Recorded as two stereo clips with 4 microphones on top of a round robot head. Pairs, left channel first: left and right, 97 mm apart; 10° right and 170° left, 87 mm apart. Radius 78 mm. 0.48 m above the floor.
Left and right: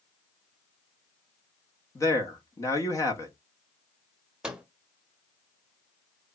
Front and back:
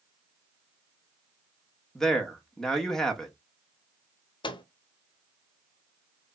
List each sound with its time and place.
1.9 s a man speaking: 75° left, 1.4 m
4.4 s a microwave: 10° right, 0.9 m